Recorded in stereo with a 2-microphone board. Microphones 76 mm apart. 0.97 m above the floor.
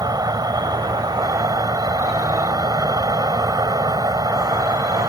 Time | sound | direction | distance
0.0 | an insect | 60° right (ahead or behind) | ?